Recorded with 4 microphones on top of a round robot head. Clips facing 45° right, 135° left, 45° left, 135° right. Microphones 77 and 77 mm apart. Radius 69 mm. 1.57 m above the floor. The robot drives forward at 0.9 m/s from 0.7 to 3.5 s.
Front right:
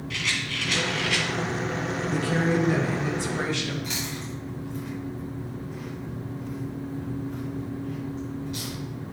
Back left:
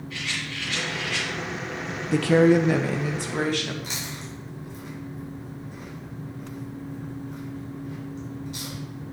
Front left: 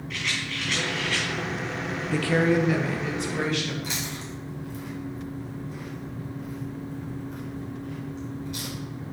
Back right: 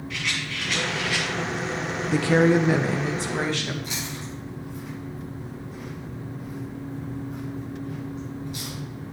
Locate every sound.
0.1 s a rattle: 45° right, 2 m; by 1.3 s 55° right, 1.8 m
2.1 s a woman speaking: 150° left, 0.6 m; by 3.7 s 170° left, 1.7 m
3.8 s chewing: 75° left, 4.5 m